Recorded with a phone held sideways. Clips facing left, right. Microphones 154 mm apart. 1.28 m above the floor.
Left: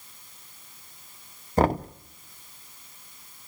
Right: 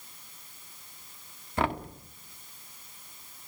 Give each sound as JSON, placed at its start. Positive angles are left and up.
{"t": 1.6, "sound": "knocking", "side_deg": 40, "distance_m": 0.7}